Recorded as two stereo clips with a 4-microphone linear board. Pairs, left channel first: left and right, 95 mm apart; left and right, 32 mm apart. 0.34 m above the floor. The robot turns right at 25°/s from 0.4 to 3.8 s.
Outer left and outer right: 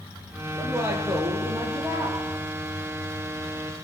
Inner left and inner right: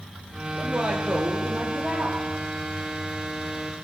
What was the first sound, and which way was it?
A woman speaking, 160° right.